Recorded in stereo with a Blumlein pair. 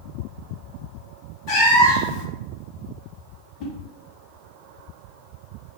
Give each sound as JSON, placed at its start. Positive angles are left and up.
{"t": 1.5, "sound": "a cat meowing", "azimuth_deg": 40, "distance_m": 1.0}
{"t": 3.6, "sound": "a whoosh", "azimuth_deg": 40, "distance_m": 0.6}